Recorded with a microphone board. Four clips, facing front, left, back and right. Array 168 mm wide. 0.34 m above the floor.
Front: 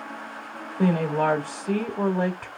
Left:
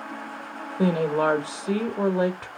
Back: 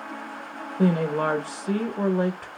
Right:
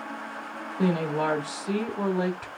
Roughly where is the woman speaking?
Left.